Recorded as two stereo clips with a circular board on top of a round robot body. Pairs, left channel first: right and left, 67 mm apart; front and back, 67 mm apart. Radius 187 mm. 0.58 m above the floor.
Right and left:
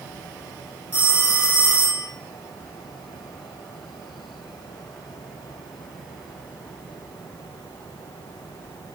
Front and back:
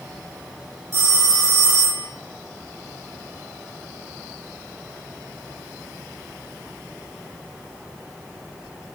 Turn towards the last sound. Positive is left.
turn(degrees=-155)